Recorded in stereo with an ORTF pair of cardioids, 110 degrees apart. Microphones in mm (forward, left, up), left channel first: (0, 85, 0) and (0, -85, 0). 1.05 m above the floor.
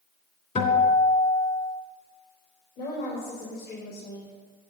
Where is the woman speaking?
65° left, 3.5 m.